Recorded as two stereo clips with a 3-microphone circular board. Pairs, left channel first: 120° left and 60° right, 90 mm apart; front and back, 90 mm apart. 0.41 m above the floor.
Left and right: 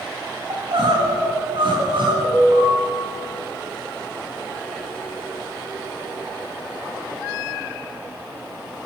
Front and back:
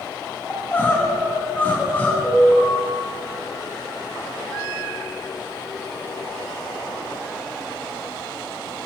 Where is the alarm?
80° right, 3 m.